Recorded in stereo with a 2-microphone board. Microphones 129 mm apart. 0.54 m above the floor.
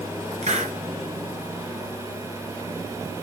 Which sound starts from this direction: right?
A hiss, at 0.4 s.